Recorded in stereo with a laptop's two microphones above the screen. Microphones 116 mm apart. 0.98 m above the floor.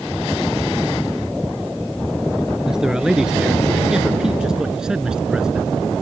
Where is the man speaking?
5° right (ahead or behind).